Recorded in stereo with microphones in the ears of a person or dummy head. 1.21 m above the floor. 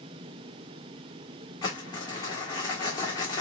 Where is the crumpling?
20° left (ahead or behind), 1.7 m.